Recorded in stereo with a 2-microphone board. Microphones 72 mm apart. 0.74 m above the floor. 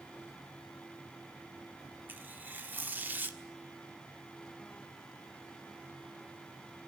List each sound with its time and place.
2.1 s tearing paper: 30° right (ahead or behind), 1.3 m